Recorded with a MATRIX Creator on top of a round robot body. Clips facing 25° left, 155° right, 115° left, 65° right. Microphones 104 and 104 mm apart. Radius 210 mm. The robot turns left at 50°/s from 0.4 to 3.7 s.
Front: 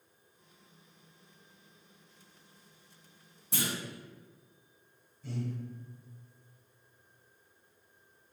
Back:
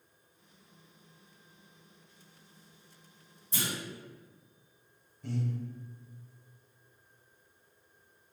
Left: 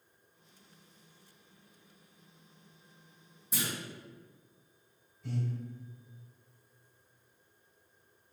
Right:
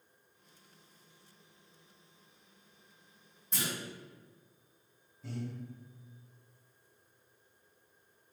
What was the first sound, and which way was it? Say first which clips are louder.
A clunk: front 1 dB, left 1 dB; 30° left.